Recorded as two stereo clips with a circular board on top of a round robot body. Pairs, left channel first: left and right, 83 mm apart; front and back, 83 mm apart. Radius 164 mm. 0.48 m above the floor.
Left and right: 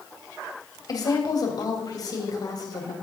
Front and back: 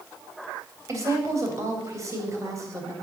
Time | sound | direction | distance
0.9 | a woman speaking | 130° left | 3 m